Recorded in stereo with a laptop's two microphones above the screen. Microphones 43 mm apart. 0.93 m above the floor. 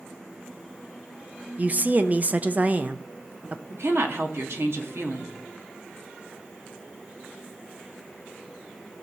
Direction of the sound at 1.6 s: 35° right (ahead or behind).